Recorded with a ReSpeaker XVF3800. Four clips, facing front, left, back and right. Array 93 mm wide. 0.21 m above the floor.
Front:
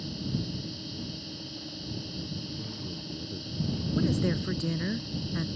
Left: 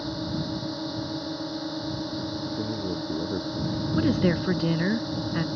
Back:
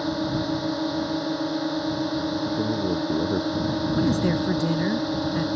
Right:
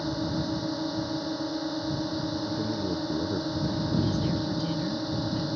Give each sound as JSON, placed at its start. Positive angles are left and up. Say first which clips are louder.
{"t": 0.0, "sound": "a drone", "louder": "right 1 dB, back 10 dB", "azimuth_deg": -175}
{"t": 2.5, "sound": "a man speaking", "louder": "even, back 15 dB", "azimuth_deg": 175}
{"t": 4.0, "sound": "a woman speaking", "louder": "left 8 dB, back 4 dB", "azimuth_deg": 115}